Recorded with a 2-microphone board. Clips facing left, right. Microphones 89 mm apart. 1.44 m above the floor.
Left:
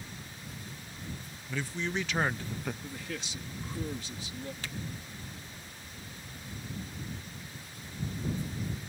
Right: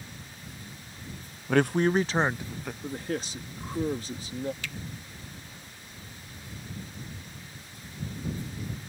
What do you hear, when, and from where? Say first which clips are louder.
1.5 s a man speaking: right 12 dB; 70° right (ahead or behind); by 2.7 s centre (ahead or behind)
2.8 s a man speaking: right 8 dB; 40° right (ahead or behind)
4.6 s a finger snap: right 2 dB; 40° left (ahead or behind)